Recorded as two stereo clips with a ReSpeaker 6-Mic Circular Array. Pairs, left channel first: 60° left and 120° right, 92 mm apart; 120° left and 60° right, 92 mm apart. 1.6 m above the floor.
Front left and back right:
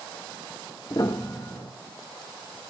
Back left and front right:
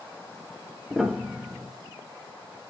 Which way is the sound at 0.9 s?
25° left.